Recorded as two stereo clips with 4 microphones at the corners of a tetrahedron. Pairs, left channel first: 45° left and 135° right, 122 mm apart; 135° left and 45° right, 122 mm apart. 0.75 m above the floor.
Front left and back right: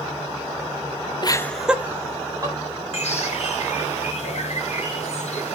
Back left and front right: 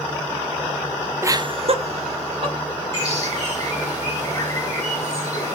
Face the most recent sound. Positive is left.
turn(degrees=75)